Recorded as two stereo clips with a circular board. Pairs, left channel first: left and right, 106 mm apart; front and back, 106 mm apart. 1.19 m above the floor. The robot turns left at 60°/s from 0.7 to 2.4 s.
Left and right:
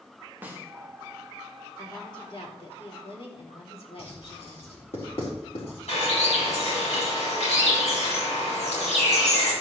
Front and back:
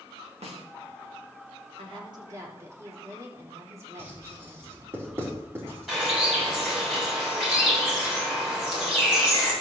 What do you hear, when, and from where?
0.4 s a snare drum: 165° right, 2 m
1.8 s a woman speaking: 155° left, 3.5 m; by 4.9 s 115° left, 3.5 m
4.0 s writing: 115° left, 3.5 m
5.9 s a bird: 95° left, 6.5 m